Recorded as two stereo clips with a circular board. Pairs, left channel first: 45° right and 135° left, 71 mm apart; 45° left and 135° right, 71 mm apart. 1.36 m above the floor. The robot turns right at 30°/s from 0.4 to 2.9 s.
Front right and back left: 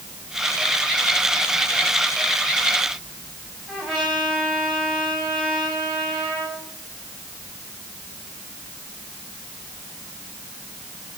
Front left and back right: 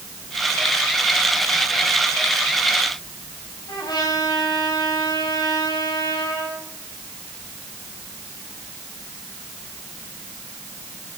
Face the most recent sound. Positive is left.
turn(degrees=55)